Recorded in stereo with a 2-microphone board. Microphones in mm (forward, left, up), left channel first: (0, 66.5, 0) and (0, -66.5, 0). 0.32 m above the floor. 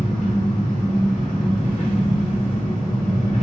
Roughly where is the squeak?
I don't hear a squeak.